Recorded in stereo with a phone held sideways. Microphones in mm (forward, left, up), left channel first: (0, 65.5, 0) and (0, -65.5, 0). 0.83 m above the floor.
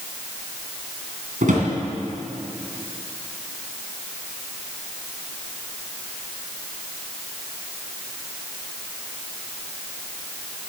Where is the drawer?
80° right, 3 m.